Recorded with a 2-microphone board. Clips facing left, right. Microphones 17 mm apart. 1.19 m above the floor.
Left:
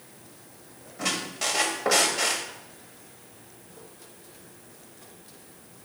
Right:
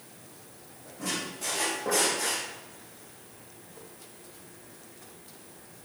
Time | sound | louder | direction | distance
1.0 | a squeak | left 5 dB | 60° left (ahead or behind) | 0.9 m